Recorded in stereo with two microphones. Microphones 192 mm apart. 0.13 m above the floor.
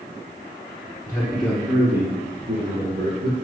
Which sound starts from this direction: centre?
A man speaking, at 1.1 s.